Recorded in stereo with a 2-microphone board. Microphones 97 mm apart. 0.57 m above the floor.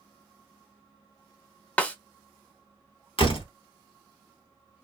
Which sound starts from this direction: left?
A door slam, at 3.2 s.